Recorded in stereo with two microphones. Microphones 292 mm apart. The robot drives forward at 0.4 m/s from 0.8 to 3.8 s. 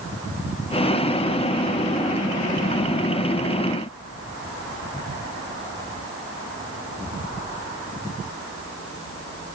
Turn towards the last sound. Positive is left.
No sound to turn to.